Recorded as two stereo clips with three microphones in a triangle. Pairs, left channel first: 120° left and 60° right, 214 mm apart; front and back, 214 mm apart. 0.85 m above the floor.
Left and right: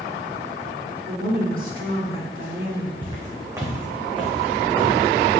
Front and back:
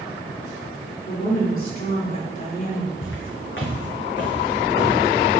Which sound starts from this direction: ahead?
Footsteps, at 3.0 s.